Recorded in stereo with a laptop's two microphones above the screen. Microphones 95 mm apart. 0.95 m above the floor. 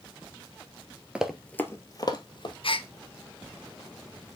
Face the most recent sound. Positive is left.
turn(degrees=65)  # may be behind; listen again after turning